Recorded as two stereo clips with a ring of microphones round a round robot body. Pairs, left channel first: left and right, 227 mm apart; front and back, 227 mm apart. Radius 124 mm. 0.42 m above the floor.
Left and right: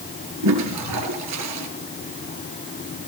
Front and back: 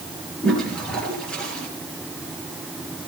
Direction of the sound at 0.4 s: 85° right.